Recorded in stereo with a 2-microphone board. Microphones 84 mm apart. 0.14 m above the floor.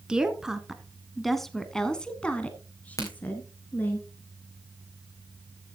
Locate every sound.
0.1 s a woman speaking: 10° right (ahead or behind), 1.3 m; by 4.0 s 20° left (ahead or behind), 1.5 m
3.0 s a crack: 35° left (ahead or behind), 3.5 m